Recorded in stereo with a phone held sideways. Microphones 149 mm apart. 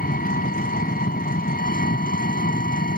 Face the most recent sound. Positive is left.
turn(degrees=80)